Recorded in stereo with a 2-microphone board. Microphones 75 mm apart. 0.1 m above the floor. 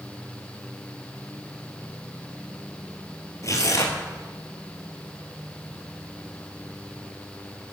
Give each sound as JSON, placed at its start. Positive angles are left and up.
{"t": 3.4, "sound": "tearing paper", "side_deg": 45, "distance_m": 1.7}